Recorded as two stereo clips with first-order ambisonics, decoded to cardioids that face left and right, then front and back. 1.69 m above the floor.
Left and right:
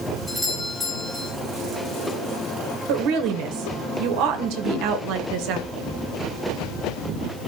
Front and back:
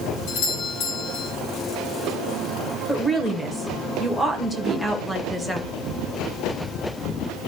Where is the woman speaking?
85° right, 1.7 m.